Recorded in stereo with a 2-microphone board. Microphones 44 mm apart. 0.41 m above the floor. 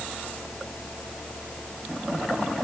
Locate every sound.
Only background noise.